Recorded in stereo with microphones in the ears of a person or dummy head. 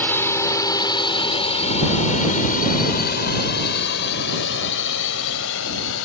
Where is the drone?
10° left (ahead or behind); by 6.0 s 75° left (ahead or behind).